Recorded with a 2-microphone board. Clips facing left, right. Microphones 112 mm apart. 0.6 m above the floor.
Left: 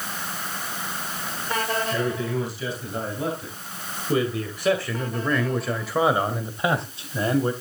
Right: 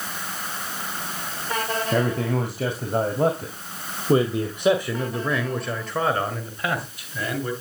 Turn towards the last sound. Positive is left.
turn(degrees=35)  # may be behind; listen again after turning